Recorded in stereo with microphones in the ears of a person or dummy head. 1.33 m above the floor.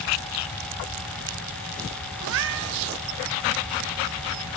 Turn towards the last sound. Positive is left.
turn(degrees=-60)  # may be behind; listen again after turning